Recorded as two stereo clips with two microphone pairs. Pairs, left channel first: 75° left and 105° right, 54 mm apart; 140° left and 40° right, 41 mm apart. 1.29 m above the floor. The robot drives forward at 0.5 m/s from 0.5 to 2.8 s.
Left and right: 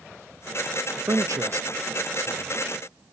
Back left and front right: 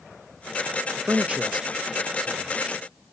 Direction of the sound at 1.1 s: 85° right.